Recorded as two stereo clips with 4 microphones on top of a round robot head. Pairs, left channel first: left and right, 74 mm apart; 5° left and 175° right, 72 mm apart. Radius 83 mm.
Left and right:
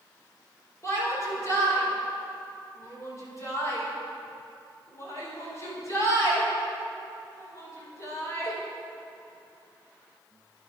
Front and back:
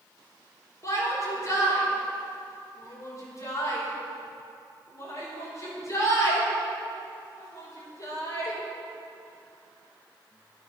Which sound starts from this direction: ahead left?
A shout, at 0.8 s.